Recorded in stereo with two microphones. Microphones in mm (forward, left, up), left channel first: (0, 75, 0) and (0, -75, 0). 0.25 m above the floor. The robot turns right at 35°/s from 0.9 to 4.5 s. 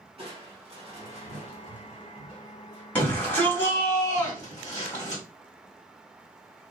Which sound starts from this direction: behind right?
Crushing, at 0.2 s.